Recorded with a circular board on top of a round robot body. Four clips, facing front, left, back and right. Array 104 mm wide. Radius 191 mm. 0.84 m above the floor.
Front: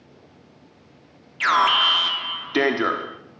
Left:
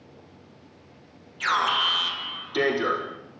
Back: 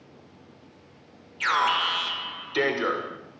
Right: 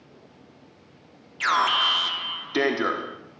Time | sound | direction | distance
1.4 | an alarm | 20° right | 4 m